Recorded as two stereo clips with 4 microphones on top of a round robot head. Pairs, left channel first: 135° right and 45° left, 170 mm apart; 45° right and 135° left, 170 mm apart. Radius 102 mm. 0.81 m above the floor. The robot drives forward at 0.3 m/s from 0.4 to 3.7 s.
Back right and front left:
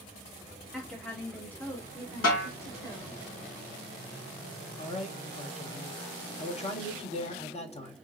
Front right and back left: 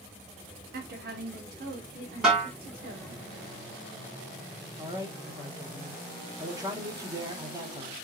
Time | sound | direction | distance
0.7 | a woman speaking | 140° left | 1.2 m
2.2 | a snare drum | 140° right | 3 m
4.8 | a man speaking | 165° right | 1.2 m